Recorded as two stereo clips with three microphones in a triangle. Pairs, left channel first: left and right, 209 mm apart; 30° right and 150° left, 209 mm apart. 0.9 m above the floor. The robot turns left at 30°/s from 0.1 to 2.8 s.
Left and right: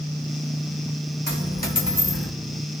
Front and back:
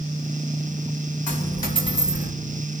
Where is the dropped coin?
55° left, 3 m; by 2.3 s 20° left, 3 m.